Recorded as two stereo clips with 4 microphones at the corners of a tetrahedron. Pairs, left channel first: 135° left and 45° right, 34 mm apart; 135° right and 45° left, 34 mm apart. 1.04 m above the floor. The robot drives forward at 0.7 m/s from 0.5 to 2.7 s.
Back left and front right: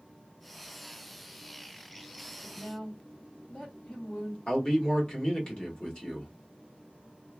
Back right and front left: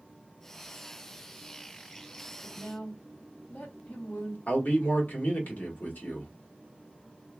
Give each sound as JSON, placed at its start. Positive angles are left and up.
{"t": 2.4, "sound": "a woman speaking", "azimuth_deg": -165, "distance_m": 1.4}
{"t": 4.5, "sound": "a man speaking", "azimuth_deg": -165, "distance_m": 1.4}